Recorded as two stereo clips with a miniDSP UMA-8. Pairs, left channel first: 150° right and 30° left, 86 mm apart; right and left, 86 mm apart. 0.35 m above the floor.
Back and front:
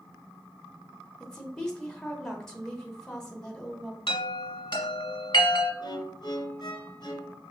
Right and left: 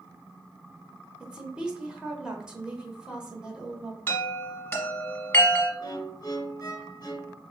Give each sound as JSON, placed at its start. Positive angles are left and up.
{"t": 1.2, "sound": "a woman speaking", "azimuth_deg": 145, "distance_m": 1.0}
{"t": 4.1, "sound": "a chime", "azimuth_deg": -155, "distance_m": 1.4}
{"t": 5.8, "sound": "a violin", "azimuth_deg": -130, "distance_m": 0.6}